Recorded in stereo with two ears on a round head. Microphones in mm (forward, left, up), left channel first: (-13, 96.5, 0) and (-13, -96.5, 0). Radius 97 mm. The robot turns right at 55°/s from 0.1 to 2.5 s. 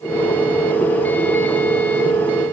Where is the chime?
I don't hear a chime.